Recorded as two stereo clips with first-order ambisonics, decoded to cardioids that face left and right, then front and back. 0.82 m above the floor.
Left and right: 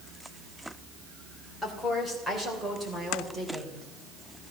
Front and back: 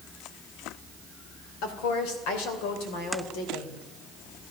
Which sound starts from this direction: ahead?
A woman speaking, at 1.6 s.